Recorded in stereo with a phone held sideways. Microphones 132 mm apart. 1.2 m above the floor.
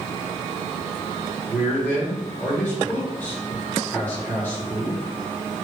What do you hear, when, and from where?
1.5 s a man speaking: 15° left (ahead or behind), 1.7 m